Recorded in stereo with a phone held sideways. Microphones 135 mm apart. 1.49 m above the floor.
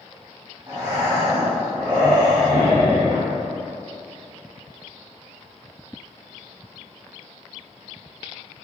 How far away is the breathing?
About 1.7 m.